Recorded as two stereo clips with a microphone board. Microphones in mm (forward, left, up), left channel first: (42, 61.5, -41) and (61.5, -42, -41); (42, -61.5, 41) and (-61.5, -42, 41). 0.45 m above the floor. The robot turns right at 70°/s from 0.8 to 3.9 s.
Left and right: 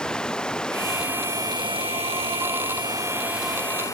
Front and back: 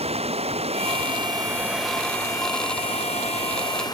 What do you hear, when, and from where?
0.0 s running water: straight behind; by 4.0 s 40° left